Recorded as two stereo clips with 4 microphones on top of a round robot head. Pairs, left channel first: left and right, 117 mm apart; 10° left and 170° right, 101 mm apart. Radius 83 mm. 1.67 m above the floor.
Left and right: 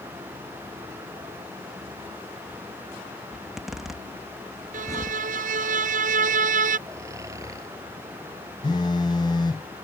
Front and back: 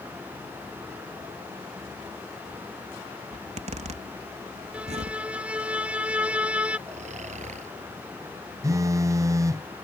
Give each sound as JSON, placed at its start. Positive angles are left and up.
{"t": 3.3, "sound": "a zipper", "azimuth_deg": 180}
{"t": 4.7, "sound": "a violin", "azimuth_deg": -90}
{"t": 6.9, "sound": "snoring", "azimuth_deg": -160}
{"t": 8.6, "sound": "a phone buzzing", "azimuth_deg": 145}